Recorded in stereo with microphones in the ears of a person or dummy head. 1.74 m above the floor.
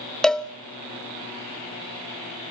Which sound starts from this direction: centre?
A cowbell, at 0.2 s.